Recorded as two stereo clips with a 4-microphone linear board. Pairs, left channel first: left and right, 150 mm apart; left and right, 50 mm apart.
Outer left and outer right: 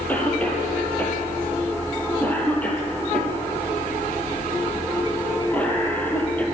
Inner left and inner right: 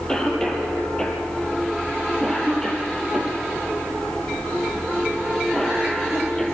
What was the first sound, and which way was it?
A cough, 10° left (ahead or behind).